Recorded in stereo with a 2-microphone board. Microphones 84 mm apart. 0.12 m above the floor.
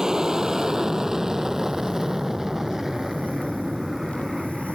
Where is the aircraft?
5° right (ahead or behind).